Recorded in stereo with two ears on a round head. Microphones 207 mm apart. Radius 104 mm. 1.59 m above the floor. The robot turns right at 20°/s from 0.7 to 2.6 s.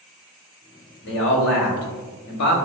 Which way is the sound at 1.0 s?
50° left.